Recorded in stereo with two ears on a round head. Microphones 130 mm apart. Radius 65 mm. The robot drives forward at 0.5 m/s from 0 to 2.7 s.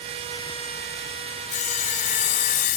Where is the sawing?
60° left (ahead or behind); by 2.8 s 65° left (ahead or behind).